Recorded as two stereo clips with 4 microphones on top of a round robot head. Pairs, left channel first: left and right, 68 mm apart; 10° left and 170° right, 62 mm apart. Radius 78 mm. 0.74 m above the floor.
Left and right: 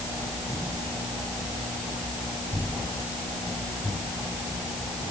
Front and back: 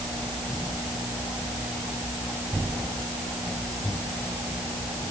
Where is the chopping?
No chopping in this recording.